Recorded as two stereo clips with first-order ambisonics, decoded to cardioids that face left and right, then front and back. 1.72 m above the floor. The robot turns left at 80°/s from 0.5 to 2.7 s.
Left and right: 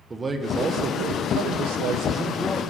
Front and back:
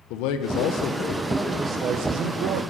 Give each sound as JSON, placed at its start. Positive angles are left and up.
{"t": 0.1, "sound": "a man speaking", "azimuth_deg": -15, "distance_m": 1.1}